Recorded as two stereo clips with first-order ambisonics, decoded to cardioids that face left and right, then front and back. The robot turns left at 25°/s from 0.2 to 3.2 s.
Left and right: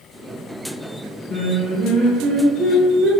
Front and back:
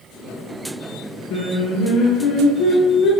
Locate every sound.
1.3 s singing: 20° left, 0.7 m; by 3.1 s 25° right, 0.7 m